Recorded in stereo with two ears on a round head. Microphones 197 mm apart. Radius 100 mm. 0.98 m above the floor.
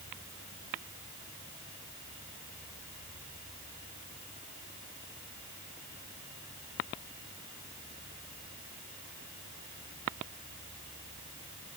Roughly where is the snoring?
No snoring in this recording.